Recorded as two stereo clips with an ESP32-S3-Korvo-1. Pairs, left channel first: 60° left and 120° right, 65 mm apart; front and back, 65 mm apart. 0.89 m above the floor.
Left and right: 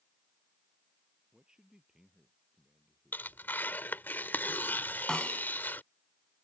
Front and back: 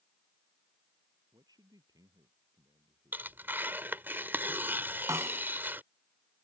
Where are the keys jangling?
No keys jangling in this recording.